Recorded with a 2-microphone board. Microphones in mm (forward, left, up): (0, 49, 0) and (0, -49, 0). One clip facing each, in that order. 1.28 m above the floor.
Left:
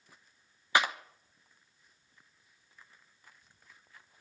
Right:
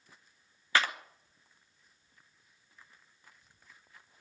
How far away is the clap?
About 1.0 m.